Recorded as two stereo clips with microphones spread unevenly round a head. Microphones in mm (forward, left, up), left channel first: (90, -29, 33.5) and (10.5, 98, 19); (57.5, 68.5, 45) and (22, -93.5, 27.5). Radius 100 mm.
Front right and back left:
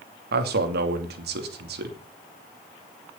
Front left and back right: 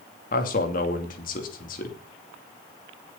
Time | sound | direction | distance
0.3 | a man speaking | 125° left | 2.5 m